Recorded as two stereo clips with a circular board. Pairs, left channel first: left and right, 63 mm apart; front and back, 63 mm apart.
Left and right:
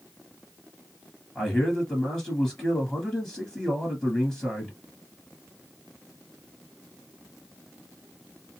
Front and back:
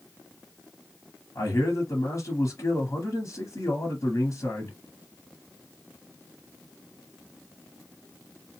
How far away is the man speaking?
About 1.6 m.